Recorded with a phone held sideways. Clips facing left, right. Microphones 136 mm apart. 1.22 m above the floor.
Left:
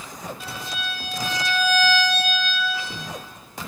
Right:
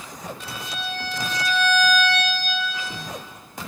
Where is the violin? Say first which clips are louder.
Even; 5° left (ahead or behind), 0.6 m.